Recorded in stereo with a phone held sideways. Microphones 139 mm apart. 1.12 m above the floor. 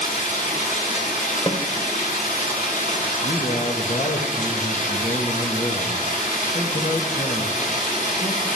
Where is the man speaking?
65° left (ahead or behind), 1.8 m.